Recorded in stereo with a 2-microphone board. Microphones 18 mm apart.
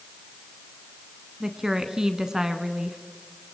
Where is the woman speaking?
35° right (ahead or behind), 1.3 m.